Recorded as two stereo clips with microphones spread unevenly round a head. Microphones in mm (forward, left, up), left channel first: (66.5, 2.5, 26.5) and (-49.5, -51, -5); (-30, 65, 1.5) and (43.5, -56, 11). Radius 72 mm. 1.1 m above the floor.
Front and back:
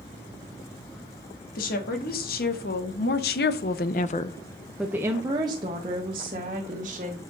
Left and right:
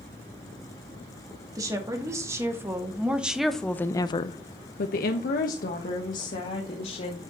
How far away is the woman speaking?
About 2 m.